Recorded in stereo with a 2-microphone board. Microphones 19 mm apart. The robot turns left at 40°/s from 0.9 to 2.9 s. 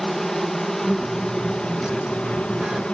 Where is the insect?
155° left, 2.5 m; by 2.9 s 75° left, 2.5 m.